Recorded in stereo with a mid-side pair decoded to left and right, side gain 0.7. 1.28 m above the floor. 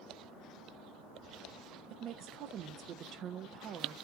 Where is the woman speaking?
45° right, 0.6 m.